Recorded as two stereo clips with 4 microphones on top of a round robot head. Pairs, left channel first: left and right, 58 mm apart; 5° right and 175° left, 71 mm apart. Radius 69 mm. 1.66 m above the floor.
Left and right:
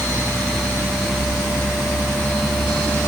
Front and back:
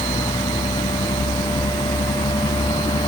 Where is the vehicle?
10° right; by 3.1 s 5° left.